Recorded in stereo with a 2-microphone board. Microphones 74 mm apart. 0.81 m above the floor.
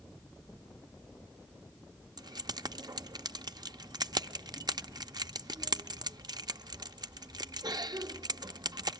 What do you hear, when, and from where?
2.2 s keys jangling: 60° right (ahead or behind), 0.5 m